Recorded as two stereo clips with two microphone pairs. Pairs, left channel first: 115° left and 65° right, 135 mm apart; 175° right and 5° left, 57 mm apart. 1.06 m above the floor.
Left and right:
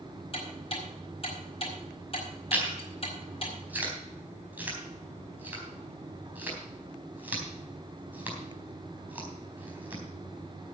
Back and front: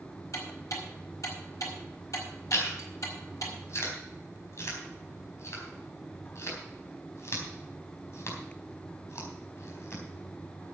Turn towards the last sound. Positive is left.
turn(degrees=-140)